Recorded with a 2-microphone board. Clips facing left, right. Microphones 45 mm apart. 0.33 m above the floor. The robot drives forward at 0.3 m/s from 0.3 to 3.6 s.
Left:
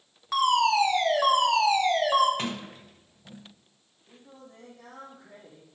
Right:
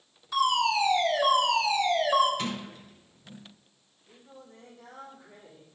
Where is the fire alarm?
55° left (ahead or behind), 4 m; by 2.3 s 50° left (ahead or behind), 4.5 m.